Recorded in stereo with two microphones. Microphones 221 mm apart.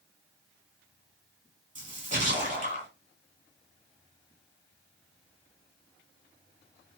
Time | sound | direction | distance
1.8 | a splash | 35° right (ahead or behind) | 1.5 m